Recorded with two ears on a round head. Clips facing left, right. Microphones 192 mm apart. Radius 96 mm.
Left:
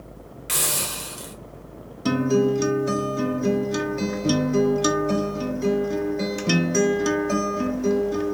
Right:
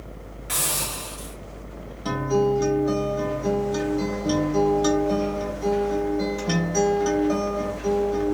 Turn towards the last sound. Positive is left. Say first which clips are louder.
# left 2 dB
turn(degrees=35)  # may be behind; listen again after turning